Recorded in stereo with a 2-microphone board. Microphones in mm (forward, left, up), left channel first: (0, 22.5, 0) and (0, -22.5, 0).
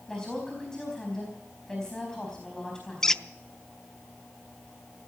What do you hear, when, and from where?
0.1 s a woman speaking: 15° left (ahead or behind), 4.5 m
3.0 s a squeak: 15° left (ahead or behind), 0.6 m